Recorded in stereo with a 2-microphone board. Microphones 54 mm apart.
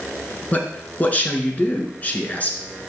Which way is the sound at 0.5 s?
30° left (ahead or behind).